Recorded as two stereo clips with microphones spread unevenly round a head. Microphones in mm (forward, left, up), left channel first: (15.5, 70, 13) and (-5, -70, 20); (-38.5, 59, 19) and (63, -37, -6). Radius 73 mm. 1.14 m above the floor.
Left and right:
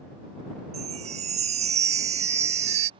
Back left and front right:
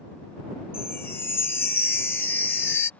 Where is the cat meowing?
I don't hear a cat meowing.